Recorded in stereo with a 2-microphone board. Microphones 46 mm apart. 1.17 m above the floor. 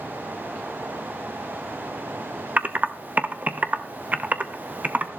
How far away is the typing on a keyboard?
About 0.8 m.